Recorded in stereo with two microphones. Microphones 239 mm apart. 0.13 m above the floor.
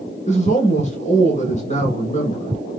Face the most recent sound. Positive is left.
turn(degrees=30)  # may be behind; listen again after turning